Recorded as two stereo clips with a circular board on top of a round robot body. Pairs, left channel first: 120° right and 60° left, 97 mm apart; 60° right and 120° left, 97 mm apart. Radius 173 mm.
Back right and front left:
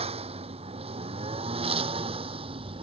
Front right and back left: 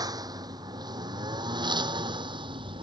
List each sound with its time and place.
0.0 s a lawn mower: 70° left; by 2.8 s 85° left